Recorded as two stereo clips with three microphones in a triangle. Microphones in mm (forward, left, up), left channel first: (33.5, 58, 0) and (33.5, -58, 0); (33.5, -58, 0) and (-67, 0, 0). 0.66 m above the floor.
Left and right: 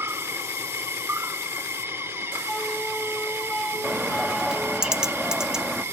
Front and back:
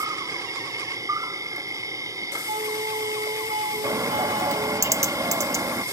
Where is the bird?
170° right.